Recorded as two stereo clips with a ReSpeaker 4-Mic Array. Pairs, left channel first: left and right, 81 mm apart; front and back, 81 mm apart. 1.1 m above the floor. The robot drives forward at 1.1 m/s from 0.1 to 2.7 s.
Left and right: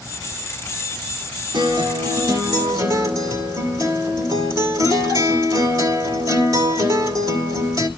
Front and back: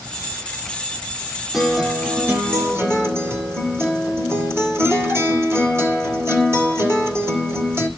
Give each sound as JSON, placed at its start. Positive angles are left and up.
{"t": 1.5, "sound": "a guitar", "azimuth_deg": -90, "distance_m": 2.0}